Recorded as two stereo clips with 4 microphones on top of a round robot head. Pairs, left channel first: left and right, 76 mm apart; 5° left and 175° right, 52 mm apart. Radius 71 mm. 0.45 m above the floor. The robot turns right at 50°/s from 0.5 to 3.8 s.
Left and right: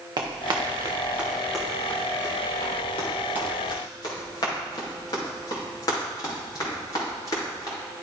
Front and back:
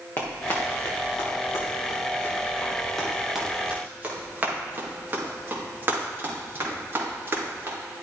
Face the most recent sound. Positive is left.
turn(degrees=140)